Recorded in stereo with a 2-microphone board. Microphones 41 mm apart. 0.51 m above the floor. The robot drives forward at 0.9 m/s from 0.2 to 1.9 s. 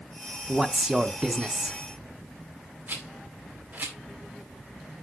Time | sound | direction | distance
0.5 | a man speaking | 15° right (ahead or behind) | 0.7 m
2.9 | a rattle | 45° right (ahead or behind) | 1.7 m